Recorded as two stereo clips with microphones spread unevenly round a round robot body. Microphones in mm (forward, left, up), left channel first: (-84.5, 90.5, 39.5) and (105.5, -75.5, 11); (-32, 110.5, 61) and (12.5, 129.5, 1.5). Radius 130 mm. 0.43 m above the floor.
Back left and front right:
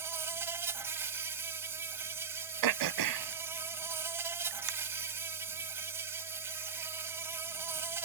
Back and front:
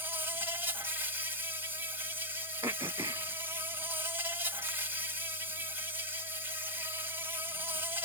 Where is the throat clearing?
30° right.